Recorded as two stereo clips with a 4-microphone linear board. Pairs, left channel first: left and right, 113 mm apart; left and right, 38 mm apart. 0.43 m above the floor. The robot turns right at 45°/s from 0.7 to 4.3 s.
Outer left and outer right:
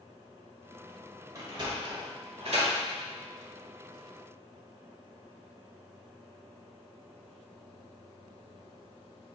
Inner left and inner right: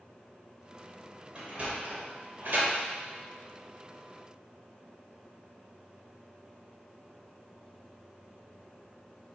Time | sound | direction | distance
1.4 | a sliding door | 30° right (ahead or behind) | 1.0 m